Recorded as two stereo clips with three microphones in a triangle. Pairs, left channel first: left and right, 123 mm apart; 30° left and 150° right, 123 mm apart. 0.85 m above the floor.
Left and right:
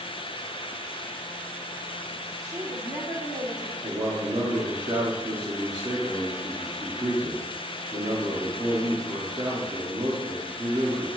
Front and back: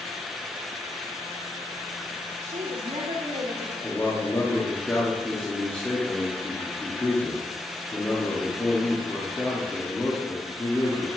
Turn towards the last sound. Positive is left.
turn(degrees=-40)